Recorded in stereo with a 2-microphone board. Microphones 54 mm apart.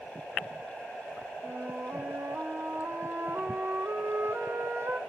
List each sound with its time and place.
1.4 s a flute: 55° right (ahead or behind), 1.3 m